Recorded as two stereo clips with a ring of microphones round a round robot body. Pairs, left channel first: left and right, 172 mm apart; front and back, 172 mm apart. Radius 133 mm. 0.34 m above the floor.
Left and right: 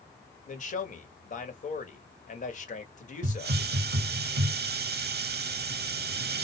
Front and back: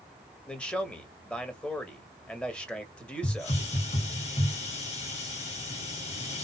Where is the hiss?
60° right, 0.7 m.